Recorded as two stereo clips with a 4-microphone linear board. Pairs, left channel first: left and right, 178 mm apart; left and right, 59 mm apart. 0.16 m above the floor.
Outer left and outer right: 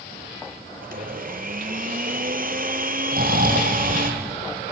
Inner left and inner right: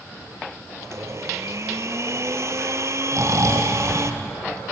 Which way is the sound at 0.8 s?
55° right (ahead or behind).